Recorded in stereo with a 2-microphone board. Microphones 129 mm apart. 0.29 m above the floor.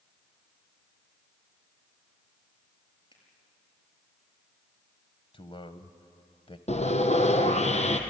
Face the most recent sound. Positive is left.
turn(degrees=60)  # may be behind; listen again after turning